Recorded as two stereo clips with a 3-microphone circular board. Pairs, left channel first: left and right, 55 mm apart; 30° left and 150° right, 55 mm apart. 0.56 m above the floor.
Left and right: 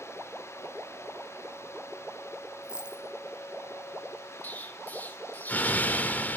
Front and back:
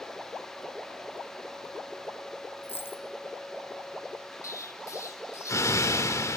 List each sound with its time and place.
2.6 s a dropped coin: 15° right, 2.5 m
4.4 s an explosion: 35° left, 1.3 m